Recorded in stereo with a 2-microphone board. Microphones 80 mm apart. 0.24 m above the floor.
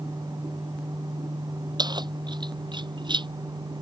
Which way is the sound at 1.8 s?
65° right (ahead or behind).